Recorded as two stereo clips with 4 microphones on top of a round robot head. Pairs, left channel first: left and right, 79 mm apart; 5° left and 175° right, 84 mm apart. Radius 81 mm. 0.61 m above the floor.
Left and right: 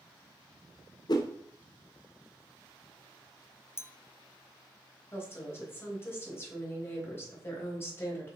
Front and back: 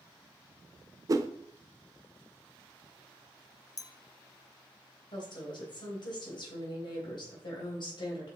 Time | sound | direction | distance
1.1 | a whoosh | 135° left | 0.6 m
3.8 | a clink | 40° left | 0.6 m
5.1 | a woman speaking | 30° left | 3 m